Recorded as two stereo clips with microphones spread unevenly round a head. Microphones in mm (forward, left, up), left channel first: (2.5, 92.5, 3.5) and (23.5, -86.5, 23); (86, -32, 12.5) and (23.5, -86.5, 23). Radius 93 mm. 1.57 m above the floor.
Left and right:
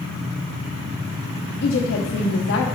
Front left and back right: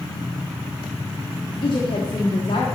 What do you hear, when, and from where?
1.6 s a woman speaking: 95° left, 0.8 m